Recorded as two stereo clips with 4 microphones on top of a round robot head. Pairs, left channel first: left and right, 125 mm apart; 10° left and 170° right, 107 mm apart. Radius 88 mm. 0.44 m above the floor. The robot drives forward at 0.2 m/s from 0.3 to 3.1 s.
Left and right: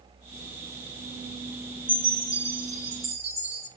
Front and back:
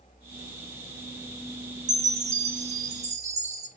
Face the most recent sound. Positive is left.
turn(degrees=-175)